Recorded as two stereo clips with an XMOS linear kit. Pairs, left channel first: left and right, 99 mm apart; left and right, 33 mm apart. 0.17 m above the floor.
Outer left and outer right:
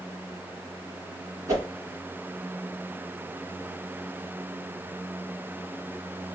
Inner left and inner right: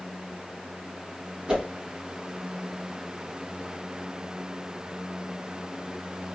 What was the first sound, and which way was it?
A whoosh, 30° right (ahead or behind).